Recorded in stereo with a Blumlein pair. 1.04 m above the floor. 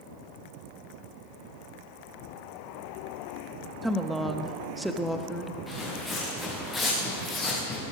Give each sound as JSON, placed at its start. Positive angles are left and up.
{"t": 3.8, "sound": "a woman speaking", "azimuth_deg": -5, "distance_m": 1.1}
{"t": 5.7, "sound": "footsteps", "azimuth_deg": 10, "distance_m": 4.5}